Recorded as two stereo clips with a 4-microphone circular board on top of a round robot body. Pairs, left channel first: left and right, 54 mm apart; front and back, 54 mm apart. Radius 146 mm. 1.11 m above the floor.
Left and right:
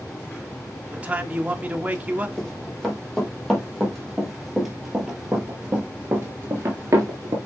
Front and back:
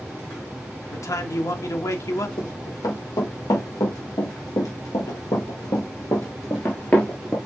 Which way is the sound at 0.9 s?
25° right.